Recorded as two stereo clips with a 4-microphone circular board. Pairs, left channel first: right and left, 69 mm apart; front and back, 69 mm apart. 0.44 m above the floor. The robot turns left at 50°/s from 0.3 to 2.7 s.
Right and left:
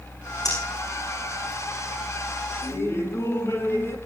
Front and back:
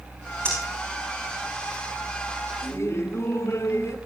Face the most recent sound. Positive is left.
turn(degrees=-45)